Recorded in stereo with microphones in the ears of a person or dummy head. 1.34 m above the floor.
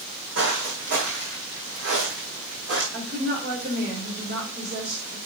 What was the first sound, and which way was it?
Footsteps, 55° right (ahead or behind).